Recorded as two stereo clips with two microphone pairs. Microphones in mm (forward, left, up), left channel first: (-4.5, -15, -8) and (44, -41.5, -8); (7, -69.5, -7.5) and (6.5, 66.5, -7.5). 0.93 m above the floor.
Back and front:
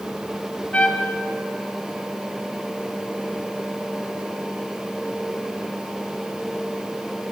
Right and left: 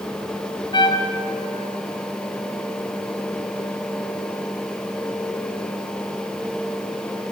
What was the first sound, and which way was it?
A trumpet, 145° right.